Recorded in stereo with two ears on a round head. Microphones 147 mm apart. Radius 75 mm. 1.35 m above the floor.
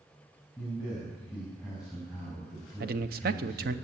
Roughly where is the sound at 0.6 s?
Centre.